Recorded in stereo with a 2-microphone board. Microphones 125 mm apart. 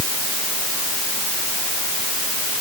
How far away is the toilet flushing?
No toilet flushing in this recording.